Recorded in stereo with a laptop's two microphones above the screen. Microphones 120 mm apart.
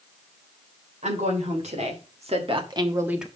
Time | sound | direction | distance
1.0 | a woman speaking | 80° right | 3 m